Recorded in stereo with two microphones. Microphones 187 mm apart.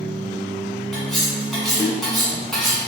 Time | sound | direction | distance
0.9 | cutlery clinking | centre (ahead or behind) | 1.2 m